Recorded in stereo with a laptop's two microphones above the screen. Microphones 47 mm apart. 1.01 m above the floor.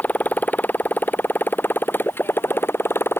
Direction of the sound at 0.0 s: 35° left (ahead or behind).